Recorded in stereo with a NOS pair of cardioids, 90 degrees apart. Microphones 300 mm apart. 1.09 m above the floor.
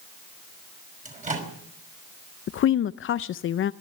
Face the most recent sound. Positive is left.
turn(degrees=45)